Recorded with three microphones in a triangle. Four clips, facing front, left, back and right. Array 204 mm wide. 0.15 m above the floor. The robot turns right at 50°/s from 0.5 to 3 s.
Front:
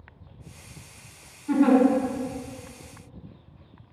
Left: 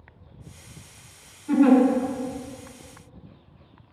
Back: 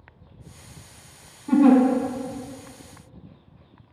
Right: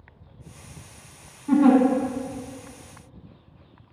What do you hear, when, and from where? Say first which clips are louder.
1.5 s a giggle: even, back 4 dB; 130° right, 1.9 m; by 1.8 s 115° right, 1.9 m